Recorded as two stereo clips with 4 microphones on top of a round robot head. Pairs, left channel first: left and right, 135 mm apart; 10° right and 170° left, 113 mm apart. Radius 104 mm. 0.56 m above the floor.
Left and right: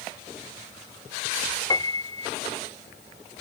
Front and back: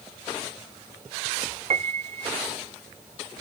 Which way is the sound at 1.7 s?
150° left.